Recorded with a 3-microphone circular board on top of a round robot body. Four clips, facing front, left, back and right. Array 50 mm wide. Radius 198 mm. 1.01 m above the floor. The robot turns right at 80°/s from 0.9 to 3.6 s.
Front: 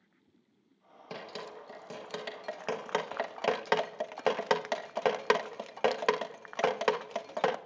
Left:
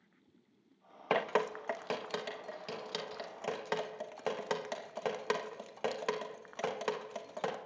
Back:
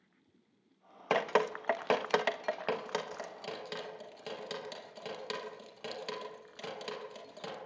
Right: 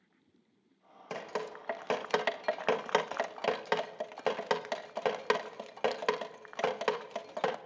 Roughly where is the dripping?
Behind left.